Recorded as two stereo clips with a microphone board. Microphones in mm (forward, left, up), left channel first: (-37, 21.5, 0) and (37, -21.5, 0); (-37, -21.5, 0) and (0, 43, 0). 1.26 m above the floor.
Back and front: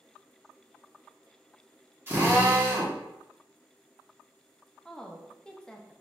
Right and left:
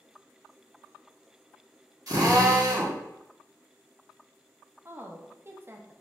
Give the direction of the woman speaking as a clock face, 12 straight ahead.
9 o'clock.